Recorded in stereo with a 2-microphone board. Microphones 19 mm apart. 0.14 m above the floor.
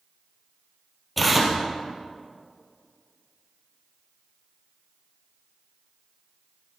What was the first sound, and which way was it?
Tearing paper, 5° right (ahead or behind).